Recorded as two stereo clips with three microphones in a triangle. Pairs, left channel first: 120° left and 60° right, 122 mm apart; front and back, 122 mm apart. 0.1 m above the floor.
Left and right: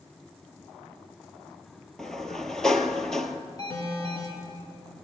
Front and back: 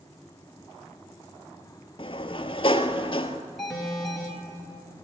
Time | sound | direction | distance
2.0 | a sliding door | 35° left | 0.8 m
3.6 | an alarm | 90° left | 3 m